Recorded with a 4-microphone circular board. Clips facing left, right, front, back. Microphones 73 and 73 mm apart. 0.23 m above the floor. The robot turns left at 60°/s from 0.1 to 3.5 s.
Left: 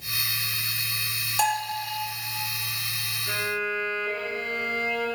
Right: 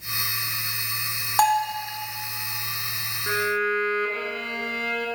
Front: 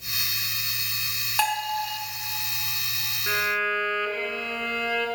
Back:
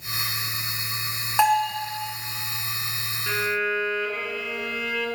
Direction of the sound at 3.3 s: 85° right.